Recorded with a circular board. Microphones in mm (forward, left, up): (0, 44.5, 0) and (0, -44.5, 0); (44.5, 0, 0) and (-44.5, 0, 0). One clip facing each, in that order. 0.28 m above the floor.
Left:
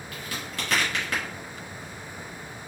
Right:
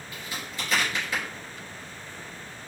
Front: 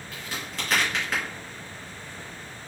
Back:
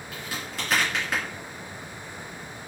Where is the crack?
95° left, 3.5 m.